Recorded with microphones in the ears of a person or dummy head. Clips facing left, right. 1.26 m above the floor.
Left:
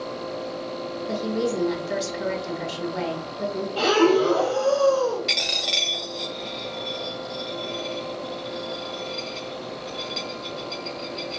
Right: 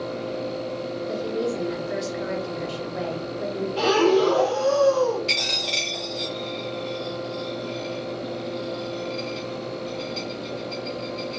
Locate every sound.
1.1 s a woman speaking: 60° left (ahead or behind), 1.1 m
3.8 s breathing: 10° left (ahead or behind), 1.0 m
5.3 s a dropped coin: 15° left (ahead or behind), 0.9 m